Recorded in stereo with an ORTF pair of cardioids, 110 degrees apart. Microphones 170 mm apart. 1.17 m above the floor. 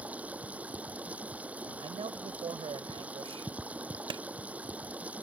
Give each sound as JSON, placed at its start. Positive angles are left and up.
{"t": 0.0, "sound": "running water", "azimuth_deg": -10}
{"t": 1.8, "sound": "a man speaking", "azimuth_deg": -35}
{"t": 4.1, "sound": "a clap", "azimuth_deg": -30}